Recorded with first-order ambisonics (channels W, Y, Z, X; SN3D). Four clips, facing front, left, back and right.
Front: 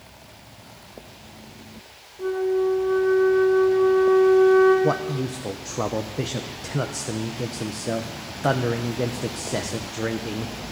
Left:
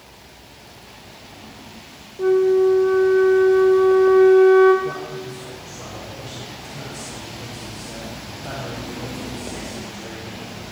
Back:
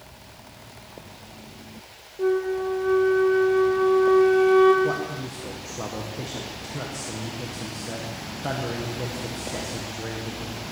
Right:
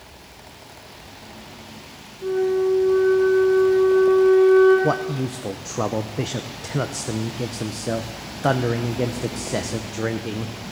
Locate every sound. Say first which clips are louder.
2.2 s a flute: left 5 dB, front 1 dB; 120° left, 2.5 m
4.8 s a man speaking: right 6 dB, front 3 dB; 60° right, 0.7 m